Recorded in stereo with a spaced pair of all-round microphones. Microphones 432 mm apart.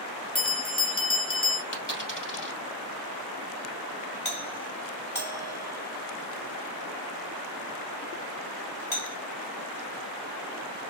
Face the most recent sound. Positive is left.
turn(degrees=25)  # may be behind; listen again after turning